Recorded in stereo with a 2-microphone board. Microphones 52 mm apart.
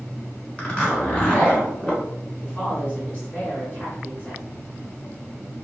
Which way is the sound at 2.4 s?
30° left (ahead or behind).